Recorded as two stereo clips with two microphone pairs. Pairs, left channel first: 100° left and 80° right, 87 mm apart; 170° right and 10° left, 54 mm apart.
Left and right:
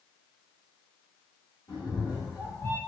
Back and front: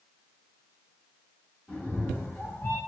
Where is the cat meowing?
125° left, 1.9 m; by 2.8 s 155° left, 1.1 m.